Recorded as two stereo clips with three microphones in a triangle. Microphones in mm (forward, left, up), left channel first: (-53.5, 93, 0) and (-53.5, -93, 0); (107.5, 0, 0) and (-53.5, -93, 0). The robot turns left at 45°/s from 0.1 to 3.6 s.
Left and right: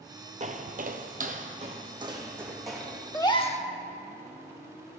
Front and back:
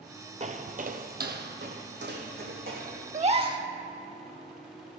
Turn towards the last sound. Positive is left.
turn(degrees=145)